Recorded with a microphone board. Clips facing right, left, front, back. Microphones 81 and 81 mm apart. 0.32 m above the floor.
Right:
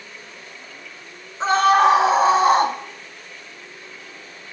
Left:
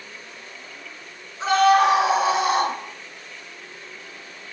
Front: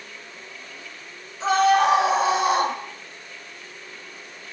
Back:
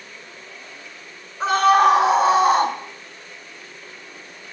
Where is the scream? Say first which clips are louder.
Right 1 dB, back 3 dB; 150° right, 4 m; by 2.8 s 140° right, 3 m.